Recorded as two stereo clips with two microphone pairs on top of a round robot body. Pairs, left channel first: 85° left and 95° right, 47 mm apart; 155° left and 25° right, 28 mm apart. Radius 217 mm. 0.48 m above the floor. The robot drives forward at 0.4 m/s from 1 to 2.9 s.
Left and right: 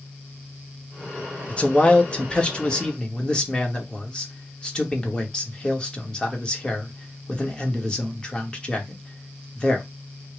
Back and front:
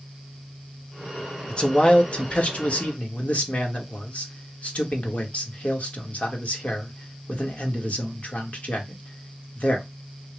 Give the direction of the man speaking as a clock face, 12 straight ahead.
8 o'clock.